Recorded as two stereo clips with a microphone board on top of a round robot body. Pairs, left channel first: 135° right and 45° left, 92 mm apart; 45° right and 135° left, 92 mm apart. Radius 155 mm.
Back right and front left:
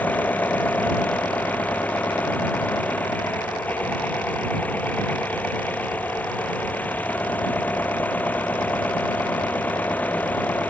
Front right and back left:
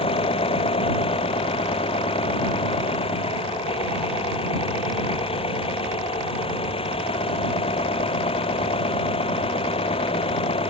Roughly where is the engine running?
Ahead right.